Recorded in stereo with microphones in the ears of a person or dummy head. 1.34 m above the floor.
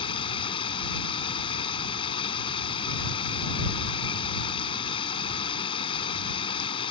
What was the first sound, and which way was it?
Running water, 30° left (ahead or behind).